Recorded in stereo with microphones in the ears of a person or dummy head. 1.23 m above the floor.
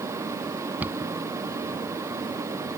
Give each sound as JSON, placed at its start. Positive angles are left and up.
{"t": 0.8, "sound": "a cupboard door", "side_deg": -10}